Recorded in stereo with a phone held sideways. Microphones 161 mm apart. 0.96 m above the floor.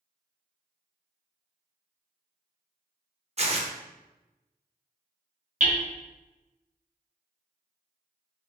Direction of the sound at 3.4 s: 45° right (ahead or behind).